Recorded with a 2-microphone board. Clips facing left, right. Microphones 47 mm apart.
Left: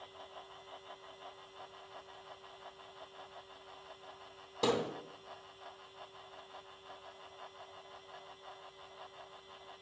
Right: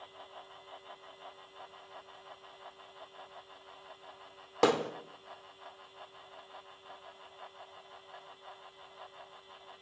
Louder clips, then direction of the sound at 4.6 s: Right 5 dB; 65° right (ahead or behind).